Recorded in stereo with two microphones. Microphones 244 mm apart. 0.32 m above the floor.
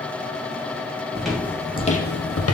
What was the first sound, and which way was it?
Footsteps, centre (ahead or behind).